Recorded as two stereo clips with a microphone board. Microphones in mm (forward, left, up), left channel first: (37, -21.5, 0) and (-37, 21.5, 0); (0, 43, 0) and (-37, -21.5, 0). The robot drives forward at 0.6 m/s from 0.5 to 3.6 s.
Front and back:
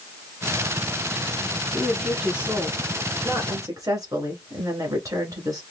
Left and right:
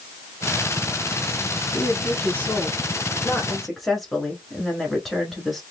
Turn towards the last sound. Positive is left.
turn(degrees=150)